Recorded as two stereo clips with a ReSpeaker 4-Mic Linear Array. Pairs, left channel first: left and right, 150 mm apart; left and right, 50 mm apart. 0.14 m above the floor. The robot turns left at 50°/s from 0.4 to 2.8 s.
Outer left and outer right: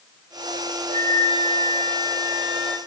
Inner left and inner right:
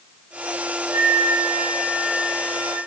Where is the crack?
No crack in this recording.